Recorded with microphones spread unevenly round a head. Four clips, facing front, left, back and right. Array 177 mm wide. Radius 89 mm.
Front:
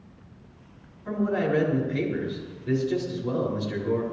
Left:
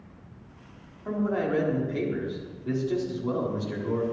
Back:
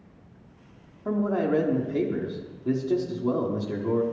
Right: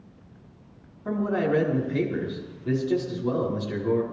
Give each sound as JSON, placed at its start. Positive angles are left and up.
{"t": 1.1, "sound": "a man speaking", "azimuth_deg": -170, "distance_m": 4.0}